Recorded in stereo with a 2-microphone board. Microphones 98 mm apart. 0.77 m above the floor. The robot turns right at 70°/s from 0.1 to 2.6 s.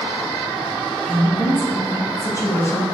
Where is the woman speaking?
20° left, 0.9 m; by 2.8 s 130° left, 0.9 m.